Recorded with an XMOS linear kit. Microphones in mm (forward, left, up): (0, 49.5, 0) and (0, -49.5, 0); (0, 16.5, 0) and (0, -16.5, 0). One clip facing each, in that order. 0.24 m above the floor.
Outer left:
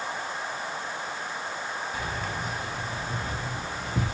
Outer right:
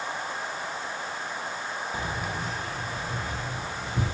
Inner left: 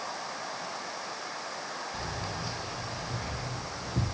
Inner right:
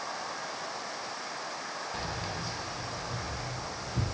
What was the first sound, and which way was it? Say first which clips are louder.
Keys jangling: outer right 1 dB, even; 30° right (ahead or behind).